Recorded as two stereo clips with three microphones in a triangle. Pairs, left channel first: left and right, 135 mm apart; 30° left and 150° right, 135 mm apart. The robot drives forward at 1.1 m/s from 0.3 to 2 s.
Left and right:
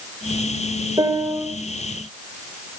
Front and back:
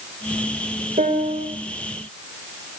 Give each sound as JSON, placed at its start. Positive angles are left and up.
{"t": 1.0, "sound": "a piano", "azimuth_deg": -150, "distance_m": 2.5}